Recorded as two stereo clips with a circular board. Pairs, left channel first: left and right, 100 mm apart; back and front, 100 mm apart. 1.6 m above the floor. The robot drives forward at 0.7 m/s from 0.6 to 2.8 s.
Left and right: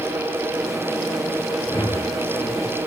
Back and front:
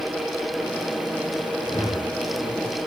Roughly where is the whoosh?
Behind left.